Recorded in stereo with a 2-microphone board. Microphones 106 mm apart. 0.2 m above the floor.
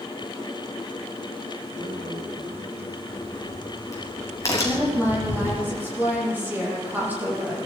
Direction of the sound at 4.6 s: 15° right (ahead or behind).